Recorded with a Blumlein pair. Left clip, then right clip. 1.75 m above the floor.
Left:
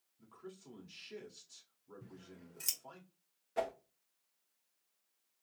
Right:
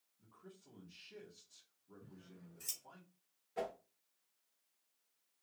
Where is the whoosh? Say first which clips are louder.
Left 5 dB; 70° left, 1.2 m.